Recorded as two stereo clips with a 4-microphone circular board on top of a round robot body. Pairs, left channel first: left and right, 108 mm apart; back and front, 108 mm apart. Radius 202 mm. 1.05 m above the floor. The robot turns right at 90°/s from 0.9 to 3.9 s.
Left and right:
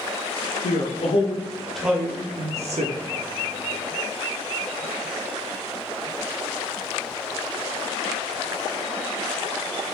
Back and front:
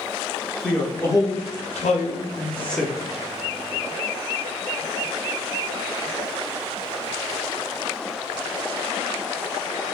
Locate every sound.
0.6 s a man speaking: 100° left, 0.6 m; by 2.9 s 75° right, 0.6 m